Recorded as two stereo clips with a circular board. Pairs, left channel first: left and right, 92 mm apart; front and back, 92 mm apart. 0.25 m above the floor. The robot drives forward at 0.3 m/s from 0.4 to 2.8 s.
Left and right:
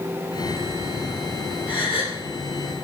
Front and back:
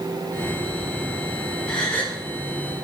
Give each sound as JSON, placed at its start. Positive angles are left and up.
{"t": 1.7, "sound": "a gasp", "azimuth_deg": 80, "distance_m": 2.5}